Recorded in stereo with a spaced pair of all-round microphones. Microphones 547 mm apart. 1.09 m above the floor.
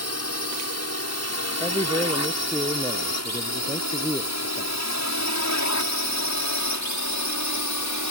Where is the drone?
25° left (ahead or behind); by 8.1 s 30° left (ahead or behind).